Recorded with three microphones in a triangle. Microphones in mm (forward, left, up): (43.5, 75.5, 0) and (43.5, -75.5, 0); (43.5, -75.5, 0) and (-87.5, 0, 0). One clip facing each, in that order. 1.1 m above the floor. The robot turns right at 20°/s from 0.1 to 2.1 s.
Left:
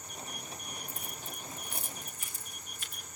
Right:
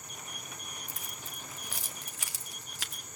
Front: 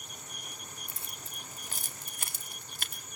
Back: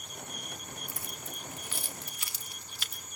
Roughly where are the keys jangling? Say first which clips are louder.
Left 3 dB, back 5 dB; right.